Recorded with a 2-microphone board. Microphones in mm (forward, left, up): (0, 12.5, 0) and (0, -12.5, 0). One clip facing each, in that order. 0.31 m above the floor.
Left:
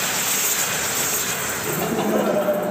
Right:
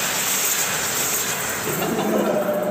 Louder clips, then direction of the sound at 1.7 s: Even; 20° right (ahead or behind).